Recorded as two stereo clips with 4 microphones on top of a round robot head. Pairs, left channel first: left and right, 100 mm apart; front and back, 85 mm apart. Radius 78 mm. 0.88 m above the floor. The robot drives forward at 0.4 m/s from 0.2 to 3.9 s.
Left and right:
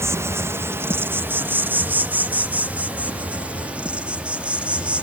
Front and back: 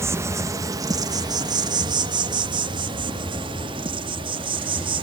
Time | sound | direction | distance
0.0 | an insect | 140° right | 1.1 m